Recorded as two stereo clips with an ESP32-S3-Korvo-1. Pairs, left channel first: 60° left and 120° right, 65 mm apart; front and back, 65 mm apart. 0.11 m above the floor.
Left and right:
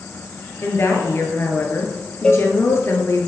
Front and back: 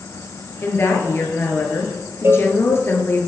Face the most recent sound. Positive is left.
turn(degrees=135)